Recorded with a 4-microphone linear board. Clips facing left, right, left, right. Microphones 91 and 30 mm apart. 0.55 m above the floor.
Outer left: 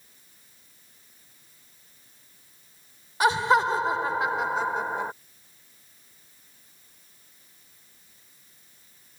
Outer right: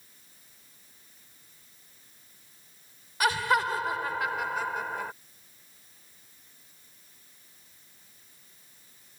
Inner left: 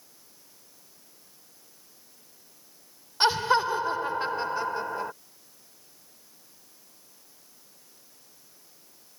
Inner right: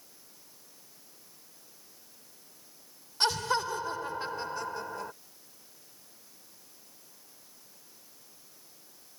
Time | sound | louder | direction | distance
3.2 | laughter | outer left 5 dB, inner left 6 dB | 25° left (ahead or behind) | ?